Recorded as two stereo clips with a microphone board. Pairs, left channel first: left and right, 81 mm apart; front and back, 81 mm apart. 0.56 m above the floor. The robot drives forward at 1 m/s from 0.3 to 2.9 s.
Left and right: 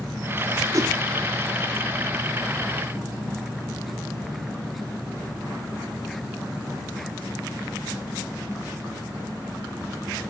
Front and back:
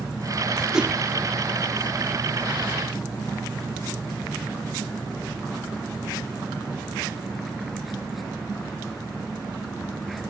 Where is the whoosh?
100° right, 1.0 m; by 0.9 s 115° right, 1.1 m.